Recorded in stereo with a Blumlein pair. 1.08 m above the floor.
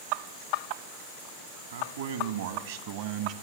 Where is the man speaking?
65° right, 2 m; by 3.3 s 35° right, 1.0 m.